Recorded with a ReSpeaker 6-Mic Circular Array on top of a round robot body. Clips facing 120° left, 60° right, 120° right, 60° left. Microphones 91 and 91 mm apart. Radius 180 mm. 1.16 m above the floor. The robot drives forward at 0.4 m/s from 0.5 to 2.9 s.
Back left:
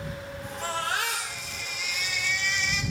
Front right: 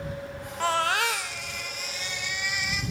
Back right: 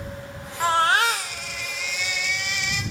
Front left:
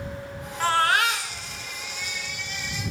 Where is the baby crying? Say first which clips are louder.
Front right 5 dB, back right 2 dB; 45° right, 0.6 m; by 2.8 s 150° right, 0.7 m.